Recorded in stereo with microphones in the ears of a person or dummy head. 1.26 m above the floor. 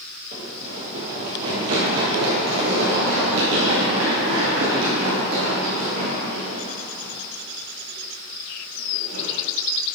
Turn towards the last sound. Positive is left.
turn(degrees=-50)  # may be behind; listen again after turning